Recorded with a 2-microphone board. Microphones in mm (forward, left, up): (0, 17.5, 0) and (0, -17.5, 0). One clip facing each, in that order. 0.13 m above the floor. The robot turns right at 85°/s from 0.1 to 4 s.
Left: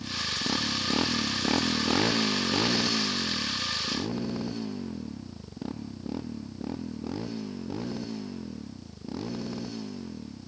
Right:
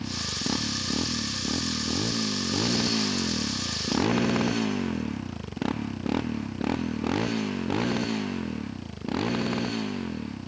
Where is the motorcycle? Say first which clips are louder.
Even; 35° right (ahead or behind); by 10.5 s 50° right (ahead or behind).